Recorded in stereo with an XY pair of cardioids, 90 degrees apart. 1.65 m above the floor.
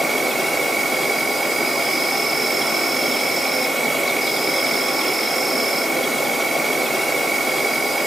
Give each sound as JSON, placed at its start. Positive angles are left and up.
{"t": 0.0, "sound": "an insect", "azimuth_deg": -25, "distance_m": 0.8}